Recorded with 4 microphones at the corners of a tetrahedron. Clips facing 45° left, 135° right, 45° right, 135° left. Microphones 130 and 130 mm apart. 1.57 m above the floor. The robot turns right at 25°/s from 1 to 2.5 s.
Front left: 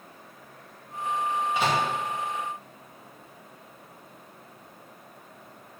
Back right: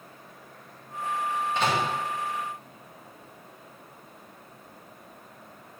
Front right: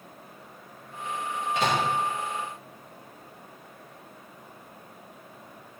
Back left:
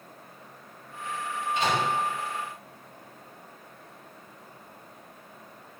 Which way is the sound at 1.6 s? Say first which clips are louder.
Even, front right 1 dB; 40° right.